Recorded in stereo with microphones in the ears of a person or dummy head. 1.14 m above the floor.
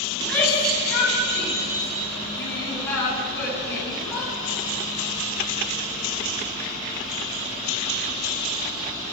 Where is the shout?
10° left (ahead or behind), 8.5 m; by 4.3 s 15° left (ahead or behind), 12.5 m.